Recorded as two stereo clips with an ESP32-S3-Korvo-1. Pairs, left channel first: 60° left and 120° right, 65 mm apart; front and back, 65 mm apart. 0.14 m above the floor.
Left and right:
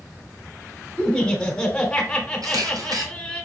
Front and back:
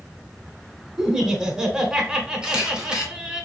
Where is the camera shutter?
100° right, 1.3 m.